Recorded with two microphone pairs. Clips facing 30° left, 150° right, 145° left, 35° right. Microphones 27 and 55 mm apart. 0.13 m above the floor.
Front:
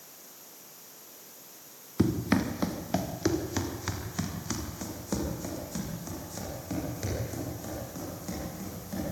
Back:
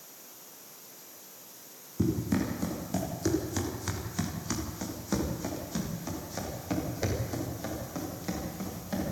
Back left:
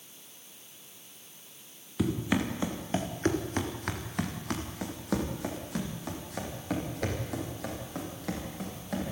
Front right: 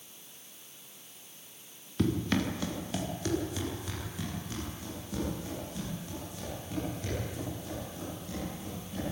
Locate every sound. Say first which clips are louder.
2.0 s running footsteps: front 2 dB, even; 55° left, 3 m; by 9.1 s 150° left, 10.5 m